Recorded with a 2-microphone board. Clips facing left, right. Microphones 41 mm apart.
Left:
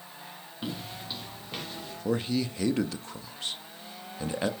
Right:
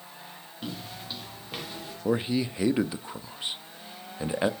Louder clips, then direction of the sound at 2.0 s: Right 2 dB; 15° right (ahead or behind).